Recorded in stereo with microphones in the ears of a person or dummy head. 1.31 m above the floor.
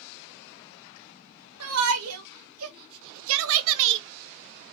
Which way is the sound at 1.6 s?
80° right.